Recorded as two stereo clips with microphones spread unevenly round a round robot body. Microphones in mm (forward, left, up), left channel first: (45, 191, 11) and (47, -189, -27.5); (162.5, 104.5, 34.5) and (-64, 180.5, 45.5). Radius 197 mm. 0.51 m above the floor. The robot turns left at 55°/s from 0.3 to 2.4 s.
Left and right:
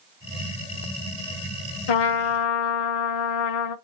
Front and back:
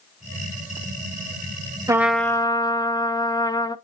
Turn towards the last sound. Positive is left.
turn(degrees=55)